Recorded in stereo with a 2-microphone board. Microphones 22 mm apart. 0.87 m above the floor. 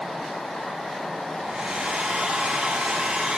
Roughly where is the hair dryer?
Right.